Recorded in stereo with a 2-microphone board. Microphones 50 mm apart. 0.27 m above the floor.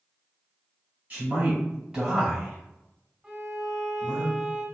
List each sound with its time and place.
1.1 s a man speaking: 30° right (ahead or behind), 1.3 m; by 4.2 s 40° left (ahead or behind), 1.6 m
3.2 s a violin: 10° right (ahead or behind), 1.0 m